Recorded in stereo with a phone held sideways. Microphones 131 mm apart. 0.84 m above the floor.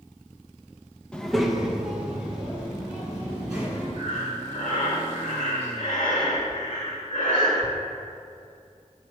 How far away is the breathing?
About 1.6 m.